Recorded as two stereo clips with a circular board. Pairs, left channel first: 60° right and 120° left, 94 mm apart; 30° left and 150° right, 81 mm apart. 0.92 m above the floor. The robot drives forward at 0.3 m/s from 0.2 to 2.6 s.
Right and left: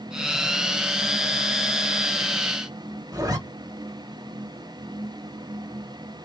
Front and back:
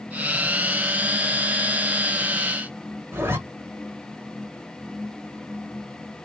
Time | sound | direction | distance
3.1 | a zipper | 160° left | 0.9 m